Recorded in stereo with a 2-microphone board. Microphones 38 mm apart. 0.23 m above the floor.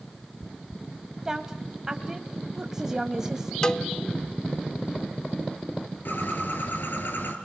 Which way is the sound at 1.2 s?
15° right (ahead or behind).